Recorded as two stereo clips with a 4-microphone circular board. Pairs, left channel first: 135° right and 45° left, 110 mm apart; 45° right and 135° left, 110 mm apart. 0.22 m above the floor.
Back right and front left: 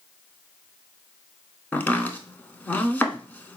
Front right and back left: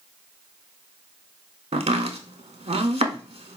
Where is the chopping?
150° left, 0.5 m.